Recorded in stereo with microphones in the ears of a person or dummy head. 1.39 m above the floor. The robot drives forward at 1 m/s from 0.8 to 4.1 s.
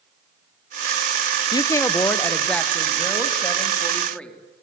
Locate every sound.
1.5 s a woman speaking: 20° left (ahead or behind), 0.5 m; by 4.4 s 5° left (ahead or behind), 3 m